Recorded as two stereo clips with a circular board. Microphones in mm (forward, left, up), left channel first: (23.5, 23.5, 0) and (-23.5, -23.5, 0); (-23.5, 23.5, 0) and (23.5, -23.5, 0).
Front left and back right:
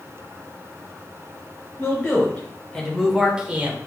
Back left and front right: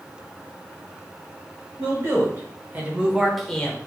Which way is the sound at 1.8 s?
15° right.